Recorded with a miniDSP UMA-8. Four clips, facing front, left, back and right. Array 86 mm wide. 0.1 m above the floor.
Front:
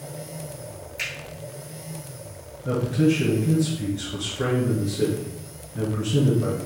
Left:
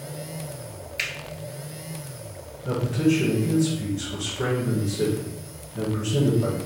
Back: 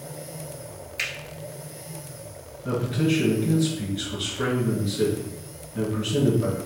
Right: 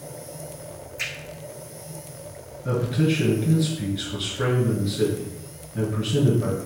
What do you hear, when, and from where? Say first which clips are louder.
1.0 s a finger snap: left 3 dB, back 2 dB; 115° left, 1.2 m
2.6 s a man speaking: left 1 dB, front 3 dB; 110° right, 1.9 m